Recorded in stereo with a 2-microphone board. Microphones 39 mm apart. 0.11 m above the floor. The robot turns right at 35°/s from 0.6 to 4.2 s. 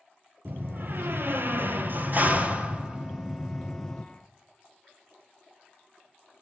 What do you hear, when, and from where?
0.5 s a door slam: 110° right, 1.7 m; by 4.0 s 10° left, 1.7 m